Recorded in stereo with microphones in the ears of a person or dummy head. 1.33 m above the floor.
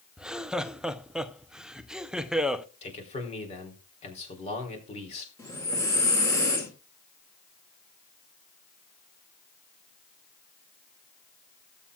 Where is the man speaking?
35° left (ahead or behind), 3.5 m.